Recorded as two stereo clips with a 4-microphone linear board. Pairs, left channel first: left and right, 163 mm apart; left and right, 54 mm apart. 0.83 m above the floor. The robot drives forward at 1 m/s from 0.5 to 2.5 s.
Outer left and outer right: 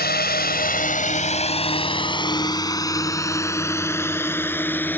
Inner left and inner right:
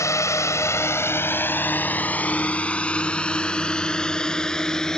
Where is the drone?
80° left; by 5.0 s 10° left (ahead or behind).